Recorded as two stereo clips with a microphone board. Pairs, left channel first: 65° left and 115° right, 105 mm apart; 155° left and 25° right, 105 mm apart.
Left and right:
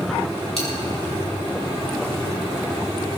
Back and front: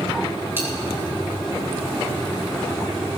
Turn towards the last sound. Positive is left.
turn(degrees=45)